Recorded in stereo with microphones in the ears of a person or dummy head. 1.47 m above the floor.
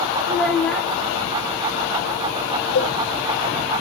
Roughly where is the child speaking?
Centre.